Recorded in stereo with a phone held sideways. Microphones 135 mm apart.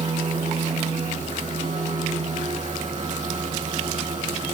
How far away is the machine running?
About 5 m.